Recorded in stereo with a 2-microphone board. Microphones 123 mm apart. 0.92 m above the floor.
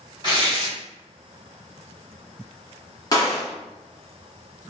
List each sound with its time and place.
0.2 s tearing paper: 40° left (ahead or behind), 1.6 m
3.1 s a gunshot: 30° left (ahead or behind), 0.9 m